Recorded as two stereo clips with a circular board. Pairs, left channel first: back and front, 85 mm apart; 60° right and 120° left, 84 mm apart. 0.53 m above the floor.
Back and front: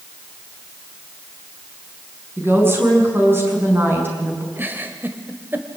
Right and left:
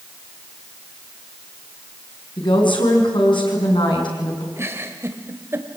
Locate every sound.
2.4 s a woman speaking: 60° right, 6 m
4.6 s a giggle: 65° left, 1.7 m